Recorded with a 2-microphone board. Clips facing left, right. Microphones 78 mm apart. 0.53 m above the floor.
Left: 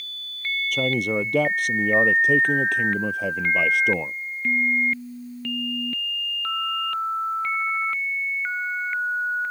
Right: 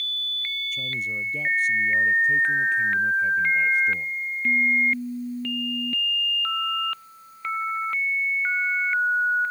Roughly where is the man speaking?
Left.